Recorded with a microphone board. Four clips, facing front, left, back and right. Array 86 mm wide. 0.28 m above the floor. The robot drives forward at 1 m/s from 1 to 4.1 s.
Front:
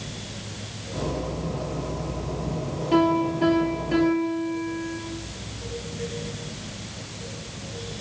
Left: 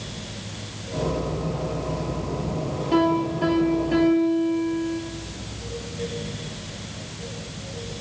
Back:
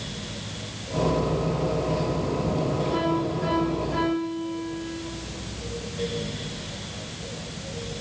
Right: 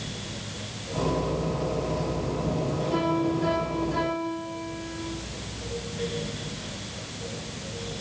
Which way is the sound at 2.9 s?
30° left.